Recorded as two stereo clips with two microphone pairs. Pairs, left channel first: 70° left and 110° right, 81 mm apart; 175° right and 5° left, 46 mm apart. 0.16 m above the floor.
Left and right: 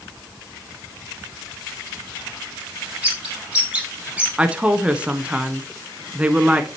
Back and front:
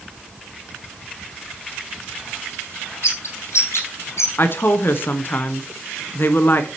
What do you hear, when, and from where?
3.0 s a bird: 175° left, 3 m
4.4 s a woman speaking: 175° right, 1.4 m